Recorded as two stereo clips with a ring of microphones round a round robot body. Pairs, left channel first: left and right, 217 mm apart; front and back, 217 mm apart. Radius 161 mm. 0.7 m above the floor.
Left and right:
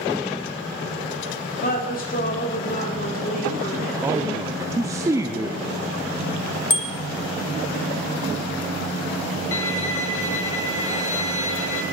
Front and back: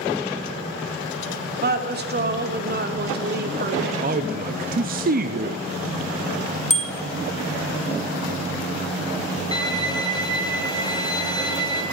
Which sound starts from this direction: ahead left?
A bicycle bell, at 6.7 s.